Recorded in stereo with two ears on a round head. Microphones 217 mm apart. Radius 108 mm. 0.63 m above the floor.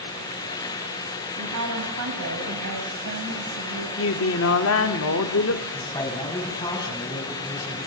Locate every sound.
1.4 s a woman speaking: 75° right (ahead or behind), 4.5 m
4.0 s a woman speaking: 60° left (ahead or behind), 1.3 m
5.7 s a man speaking: 15° left (ahead or behind), 6 m